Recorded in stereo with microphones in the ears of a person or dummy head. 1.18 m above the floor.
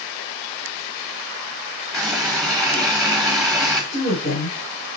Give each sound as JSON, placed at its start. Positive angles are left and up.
{"t": 1.9, "sound": "a running tap", "side_deg": 0, "distance_m": 2.0}
{"t": 3.9, "sound": "a woman speaking", "side_deg": 45, "distance_m": 4.0}